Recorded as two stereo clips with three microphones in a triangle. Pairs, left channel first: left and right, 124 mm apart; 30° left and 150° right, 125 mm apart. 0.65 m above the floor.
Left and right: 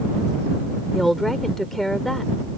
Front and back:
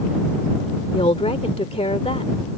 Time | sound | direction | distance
0.9 | a woman speaking | straight ahead | ?